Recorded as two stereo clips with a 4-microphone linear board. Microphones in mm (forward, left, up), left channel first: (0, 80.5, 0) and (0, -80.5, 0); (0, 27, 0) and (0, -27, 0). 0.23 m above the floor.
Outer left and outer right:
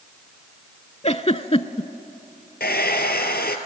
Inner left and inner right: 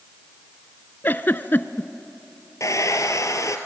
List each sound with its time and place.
1.0 s a giggle: 40° left (ahead or behind), 0.5 m
2.6 s a hair dryer: 80° left, 1.4 m